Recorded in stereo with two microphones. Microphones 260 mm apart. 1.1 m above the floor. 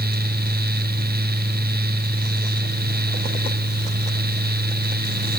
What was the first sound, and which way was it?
Only background noise.